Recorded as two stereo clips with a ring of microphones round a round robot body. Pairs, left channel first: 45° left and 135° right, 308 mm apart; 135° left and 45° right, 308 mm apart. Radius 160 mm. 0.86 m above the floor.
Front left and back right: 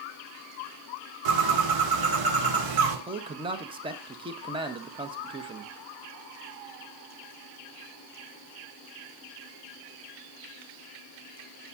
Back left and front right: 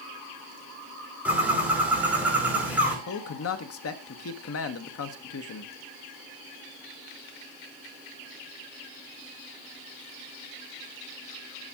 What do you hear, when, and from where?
1.2 s a bird: 130° right, 2.5 m
3.1 s a man speaking: 155° left, 1.2 m